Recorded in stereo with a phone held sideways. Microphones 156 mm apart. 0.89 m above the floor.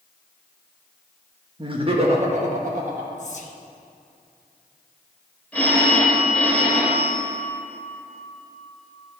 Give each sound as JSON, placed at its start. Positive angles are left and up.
{"t": 1.6, "sound": "laughter", "side_deg": -30, "distance_m": 1.2}
{"t": 3.2, "sound": "whispering", "side_deg": 50, "distance_m": 0.8}
{"t": 5.5, "sound": "a phone ringing", "side_deg": 10, "distance_m": 2.0}